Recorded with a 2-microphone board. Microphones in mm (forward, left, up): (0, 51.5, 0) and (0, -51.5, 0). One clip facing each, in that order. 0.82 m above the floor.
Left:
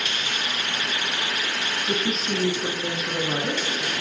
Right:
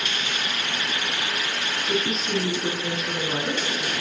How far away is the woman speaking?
About 0.9 m.